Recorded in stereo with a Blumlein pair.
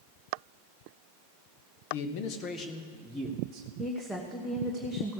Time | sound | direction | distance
1.9 | a man speaking | 50° left | 1.2 m
3.8 | a woman speaking | 10° left | 1.3 m